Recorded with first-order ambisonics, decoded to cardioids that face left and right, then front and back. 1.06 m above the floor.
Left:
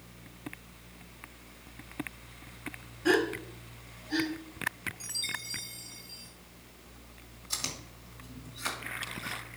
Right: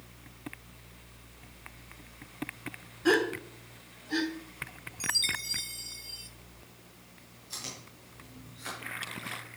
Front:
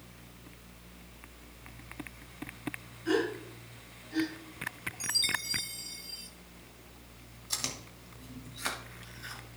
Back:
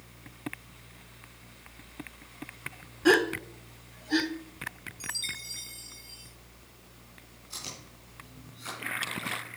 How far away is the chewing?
About 2.5 m.